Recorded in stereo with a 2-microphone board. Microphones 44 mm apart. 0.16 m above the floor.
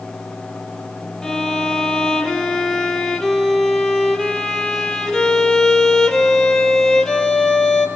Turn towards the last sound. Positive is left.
turn(degrees=15)  # may be behind; listen again after turning